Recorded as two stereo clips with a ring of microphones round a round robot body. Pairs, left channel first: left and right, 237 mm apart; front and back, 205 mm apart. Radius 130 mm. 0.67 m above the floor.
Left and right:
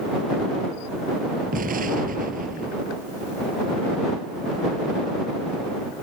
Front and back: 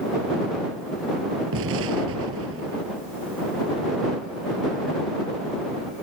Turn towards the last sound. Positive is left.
turn(degrees=-145)